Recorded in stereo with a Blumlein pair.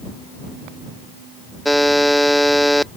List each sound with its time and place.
1.6 s a buzzer: straight ahead